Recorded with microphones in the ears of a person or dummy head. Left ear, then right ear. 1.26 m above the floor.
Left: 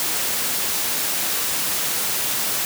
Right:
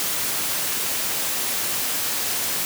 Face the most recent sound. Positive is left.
No sound to turn to.